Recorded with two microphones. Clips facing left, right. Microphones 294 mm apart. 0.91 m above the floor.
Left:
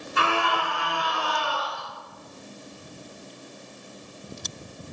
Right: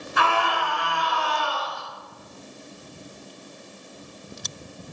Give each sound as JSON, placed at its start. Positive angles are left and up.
{"t": 0.2, "sound": "a scream", "side_deg": 30, "distance_m": 8.0}